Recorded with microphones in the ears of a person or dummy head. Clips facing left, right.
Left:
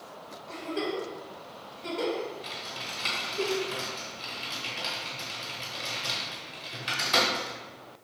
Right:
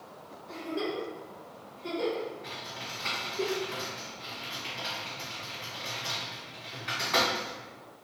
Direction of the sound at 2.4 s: 45° left (ahead or behind).